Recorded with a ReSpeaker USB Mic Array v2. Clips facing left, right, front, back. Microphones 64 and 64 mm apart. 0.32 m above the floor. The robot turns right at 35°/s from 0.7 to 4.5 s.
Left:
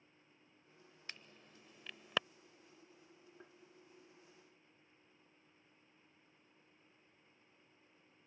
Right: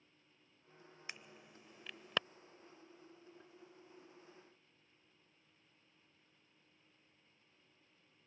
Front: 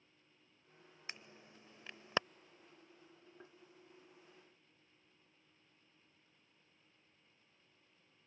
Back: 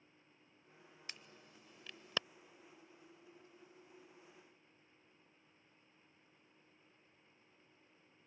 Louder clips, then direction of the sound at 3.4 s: Left 1 dB, front 3 dB; 25° left.